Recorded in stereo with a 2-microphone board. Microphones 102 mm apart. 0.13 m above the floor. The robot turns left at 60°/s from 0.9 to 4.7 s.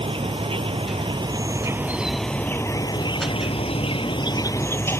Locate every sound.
0.0 s an insect: 105° right; by 5.0 s 25° left